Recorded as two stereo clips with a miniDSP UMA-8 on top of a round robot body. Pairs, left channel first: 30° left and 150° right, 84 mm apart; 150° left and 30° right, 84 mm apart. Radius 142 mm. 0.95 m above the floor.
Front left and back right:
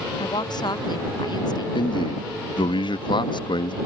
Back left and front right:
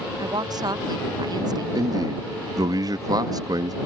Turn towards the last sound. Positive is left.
turn(degrees=10)